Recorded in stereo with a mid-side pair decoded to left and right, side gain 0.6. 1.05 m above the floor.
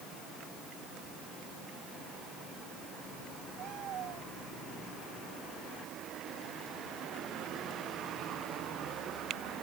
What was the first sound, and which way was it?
Only background noise.